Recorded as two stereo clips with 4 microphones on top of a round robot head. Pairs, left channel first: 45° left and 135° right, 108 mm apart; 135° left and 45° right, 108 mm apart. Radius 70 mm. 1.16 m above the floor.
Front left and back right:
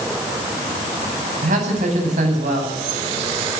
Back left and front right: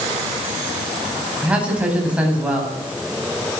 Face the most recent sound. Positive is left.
turn(degrees=-125)